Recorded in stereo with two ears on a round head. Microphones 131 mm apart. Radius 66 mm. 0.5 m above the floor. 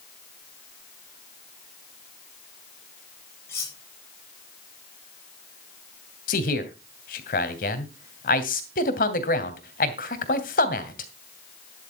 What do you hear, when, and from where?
3.5 s cutlery clinking: 15° left (ahead or behind), 7.5 m
6.3 s a man speaking: 65° left (ahead or behind), 2.5 m